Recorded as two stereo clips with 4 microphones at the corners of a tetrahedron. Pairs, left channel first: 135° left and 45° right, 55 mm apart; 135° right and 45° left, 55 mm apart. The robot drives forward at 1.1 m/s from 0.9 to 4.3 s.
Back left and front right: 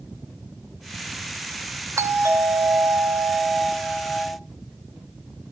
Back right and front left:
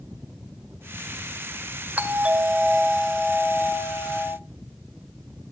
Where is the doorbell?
20° right, 1.9 m; by 4.4 s 150° right, 1.1 m.